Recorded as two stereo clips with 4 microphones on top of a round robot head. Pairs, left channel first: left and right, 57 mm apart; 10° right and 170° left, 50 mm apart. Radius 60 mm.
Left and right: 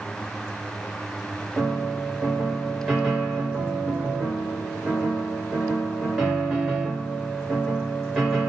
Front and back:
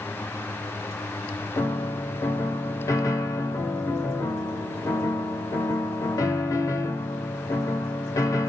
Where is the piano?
5° right, 1.2 m.